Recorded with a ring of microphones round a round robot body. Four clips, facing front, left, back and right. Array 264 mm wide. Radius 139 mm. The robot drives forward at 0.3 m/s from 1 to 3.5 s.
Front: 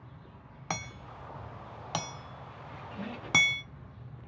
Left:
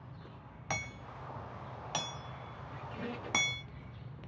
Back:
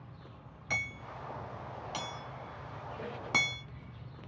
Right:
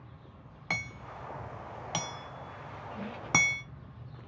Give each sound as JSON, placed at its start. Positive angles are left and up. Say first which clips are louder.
{"t": 0.7, "sound": "hammering", "louder": "right 2 dB, front 1 dB", "azimuth_deg": -20, "distance_m": 1.0}
{"t": 2.7, "sound": "a squeak", "louder": "even, front 2 dB", "azimuth_deg": 30, "distance_m": 2.5}